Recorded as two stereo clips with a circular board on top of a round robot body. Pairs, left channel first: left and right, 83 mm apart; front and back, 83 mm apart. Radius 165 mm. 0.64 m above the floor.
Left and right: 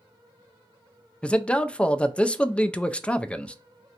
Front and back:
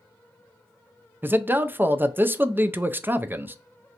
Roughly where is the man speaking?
Behind left.